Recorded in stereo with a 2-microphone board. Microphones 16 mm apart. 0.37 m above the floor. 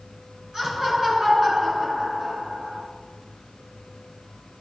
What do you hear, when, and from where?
0.5 s laughter: 45° right (ahead or behind), 5.5 m; by 2.8 s 40° right (ahead or behind), 4.5 m